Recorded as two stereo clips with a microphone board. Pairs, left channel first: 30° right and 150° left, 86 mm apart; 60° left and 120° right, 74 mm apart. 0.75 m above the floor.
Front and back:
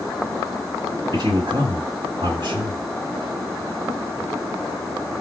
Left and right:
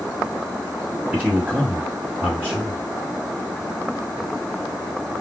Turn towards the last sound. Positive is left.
turn(degrees=175)